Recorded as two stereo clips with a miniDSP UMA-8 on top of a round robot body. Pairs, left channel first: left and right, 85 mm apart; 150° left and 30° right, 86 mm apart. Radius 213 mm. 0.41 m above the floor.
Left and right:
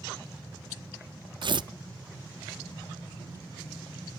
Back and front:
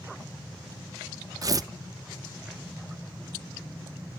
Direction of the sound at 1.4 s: 75° right.